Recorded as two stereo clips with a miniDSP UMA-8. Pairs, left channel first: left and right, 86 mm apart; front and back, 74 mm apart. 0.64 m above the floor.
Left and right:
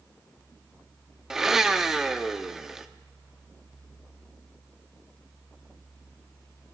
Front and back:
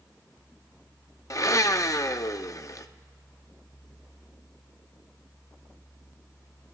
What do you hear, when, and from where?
1.3 s a blender: 5° right, 0.6 m